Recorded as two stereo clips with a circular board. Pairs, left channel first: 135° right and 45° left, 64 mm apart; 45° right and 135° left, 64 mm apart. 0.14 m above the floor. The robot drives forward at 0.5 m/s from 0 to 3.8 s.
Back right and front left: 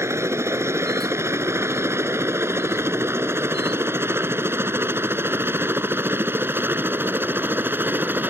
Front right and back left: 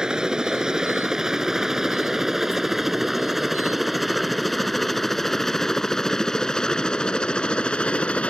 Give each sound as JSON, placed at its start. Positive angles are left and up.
{"t": 0.0, "sound": "a helicopter", "azimuth_deg": 60}